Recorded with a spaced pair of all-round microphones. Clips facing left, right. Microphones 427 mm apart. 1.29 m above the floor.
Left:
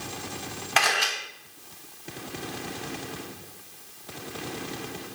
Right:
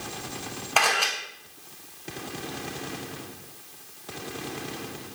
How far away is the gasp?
I don't hear a gasp.